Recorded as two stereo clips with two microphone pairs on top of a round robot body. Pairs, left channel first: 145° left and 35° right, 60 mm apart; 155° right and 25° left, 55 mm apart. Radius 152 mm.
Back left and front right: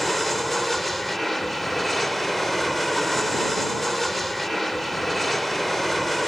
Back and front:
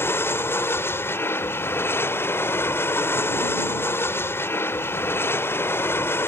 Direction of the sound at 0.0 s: 120° right.